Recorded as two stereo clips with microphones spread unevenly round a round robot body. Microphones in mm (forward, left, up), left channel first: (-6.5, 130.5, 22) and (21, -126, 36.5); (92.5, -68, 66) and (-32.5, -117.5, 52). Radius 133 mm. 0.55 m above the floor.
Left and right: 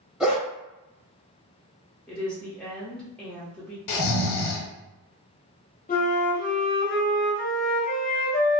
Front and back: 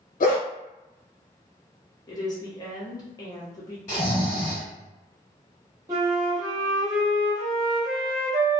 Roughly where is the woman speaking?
Ahead left.